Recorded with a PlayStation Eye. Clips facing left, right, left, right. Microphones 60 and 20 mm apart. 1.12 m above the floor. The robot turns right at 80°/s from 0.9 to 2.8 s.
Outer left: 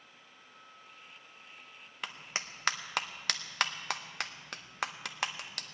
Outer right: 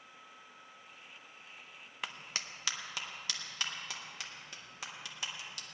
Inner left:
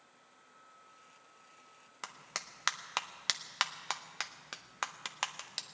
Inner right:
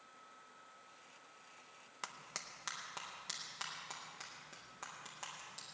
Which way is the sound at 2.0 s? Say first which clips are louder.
Outer left 2 dB, inner left 4 dB; centre (ahead or behind).